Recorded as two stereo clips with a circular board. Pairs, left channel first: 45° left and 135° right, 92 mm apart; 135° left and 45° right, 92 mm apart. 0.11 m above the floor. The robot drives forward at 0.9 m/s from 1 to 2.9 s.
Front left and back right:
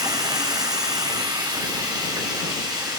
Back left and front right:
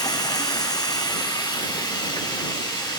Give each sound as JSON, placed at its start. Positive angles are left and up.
{"t": 0.0, "sound": "running water", "azimuth_deg": 180, "distance_m": 1.1}